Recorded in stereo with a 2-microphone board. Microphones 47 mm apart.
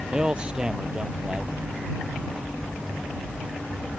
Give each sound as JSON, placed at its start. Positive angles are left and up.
{"t": 0.1, "sound": "a man speaking", "side_deg": -20}